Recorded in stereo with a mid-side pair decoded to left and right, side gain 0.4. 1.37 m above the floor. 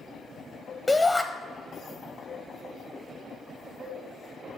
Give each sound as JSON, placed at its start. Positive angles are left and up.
{"t": 0.9, "sound": "a shout", "azimuth_deg": 25, "distance_m": 0.7}